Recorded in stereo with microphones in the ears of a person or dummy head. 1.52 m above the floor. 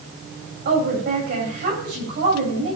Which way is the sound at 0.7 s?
60° right (ahead or behind).